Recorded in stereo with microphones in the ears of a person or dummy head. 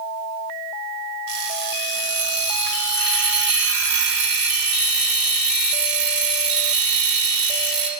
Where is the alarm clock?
65° right (ahead or behind), 2.0 m.